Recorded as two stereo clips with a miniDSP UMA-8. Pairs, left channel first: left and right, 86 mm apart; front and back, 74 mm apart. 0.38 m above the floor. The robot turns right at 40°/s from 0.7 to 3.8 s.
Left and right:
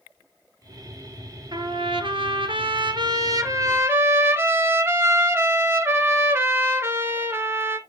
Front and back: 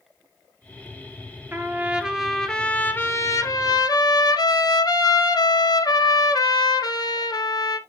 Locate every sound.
1.5 s a trumpet: 120° right, 1.6 m; by 7.8 s 30° right, 1.6 m